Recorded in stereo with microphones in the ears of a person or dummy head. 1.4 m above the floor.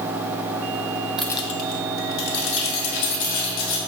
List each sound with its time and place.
1.2 s keys jangling: 10° right (ahead or behind), 0.5 m; by 3.8 s 70° left (ahead or behind), 4 m